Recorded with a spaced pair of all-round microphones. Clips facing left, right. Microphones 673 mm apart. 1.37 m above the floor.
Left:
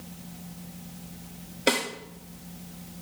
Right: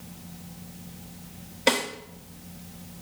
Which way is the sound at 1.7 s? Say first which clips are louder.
Right 1 dB; 30° right (ahead or behind).